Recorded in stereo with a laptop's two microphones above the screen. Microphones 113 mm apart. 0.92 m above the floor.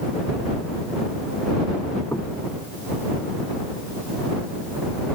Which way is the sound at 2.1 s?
25° left (ahead or behind).